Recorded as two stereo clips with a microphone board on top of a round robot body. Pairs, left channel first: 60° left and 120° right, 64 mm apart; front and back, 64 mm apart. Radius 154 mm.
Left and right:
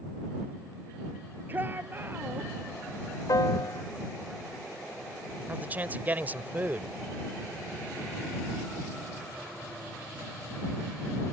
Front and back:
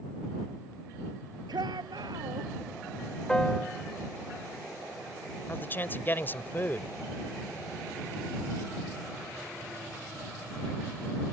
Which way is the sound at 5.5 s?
60° right.